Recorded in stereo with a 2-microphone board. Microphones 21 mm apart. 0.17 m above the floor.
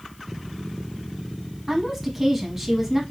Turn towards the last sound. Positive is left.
turn(degrees=-20)  # may be behind; listen again after turning